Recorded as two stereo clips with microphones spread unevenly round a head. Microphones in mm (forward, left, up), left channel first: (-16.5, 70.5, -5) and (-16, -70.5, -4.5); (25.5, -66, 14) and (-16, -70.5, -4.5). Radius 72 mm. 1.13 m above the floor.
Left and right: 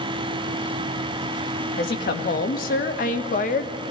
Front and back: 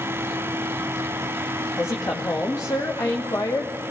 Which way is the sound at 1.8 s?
60° left.